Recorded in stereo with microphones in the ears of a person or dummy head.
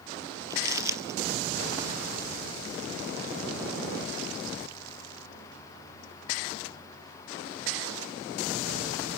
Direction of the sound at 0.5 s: 20° right (ahead or behind).